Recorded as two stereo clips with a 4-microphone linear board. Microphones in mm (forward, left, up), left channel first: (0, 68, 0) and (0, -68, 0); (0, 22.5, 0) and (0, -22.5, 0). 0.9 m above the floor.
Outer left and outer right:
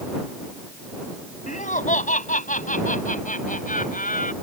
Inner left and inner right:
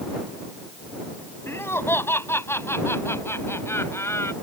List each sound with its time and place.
1.5 s laughter: 65° left (ahead or behind); by 4.3 s 75° left (ahead or behind)